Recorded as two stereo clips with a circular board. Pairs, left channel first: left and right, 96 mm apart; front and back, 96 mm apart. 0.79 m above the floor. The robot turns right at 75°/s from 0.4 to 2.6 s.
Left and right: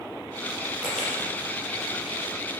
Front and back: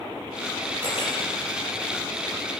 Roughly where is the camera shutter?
Ahead.